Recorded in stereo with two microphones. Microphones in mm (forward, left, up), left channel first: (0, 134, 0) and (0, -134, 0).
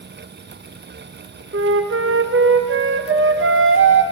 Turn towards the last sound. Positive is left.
turn(degrees=-50)  # may be behind; listen again after turning